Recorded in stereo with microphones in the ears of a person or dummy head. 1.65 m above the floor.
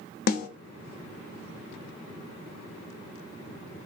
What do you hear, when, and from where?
0.3 s a snare drum: 55° left (ahead or behind), 0.6 m